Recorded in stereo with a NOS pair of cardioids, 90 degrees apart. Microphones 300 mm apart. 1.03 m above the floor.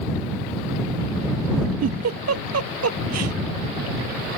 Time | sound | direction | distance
1.8 | a giggle | 55° right | ?